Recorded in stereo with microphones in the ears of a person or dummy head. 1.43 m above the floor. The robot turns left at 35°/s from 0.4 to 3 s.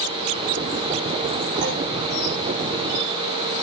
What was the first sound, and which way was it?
A clunk, 70° right (ahead or behind).